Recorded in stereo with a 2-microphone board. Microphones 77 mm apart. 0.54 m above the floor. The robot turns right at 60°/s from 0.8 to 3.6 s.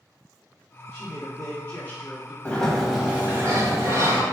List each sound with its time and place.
0.9 s a man speaking: 5° left (ahead or behind), 1.0 m; by 2.4 s 30° left (ahead or behind), 1.0 m
2.5 s a sliding door: 160° left, 0.8 m; by 4.2 s 135° right, 0.8 m